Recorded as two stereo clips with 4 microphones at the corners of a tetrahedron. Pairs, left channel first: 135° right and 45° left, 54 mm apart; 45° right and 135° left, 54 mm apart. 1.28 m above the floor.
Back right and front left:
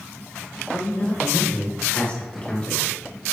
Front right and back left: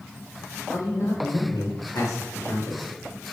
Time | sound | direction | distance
0.7 | a man speaking | 70° right | 2.5 m